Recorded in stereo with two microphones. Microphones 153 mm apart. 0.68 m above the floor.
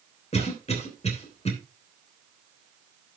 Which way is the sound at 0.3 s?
45° left (ahead or behind).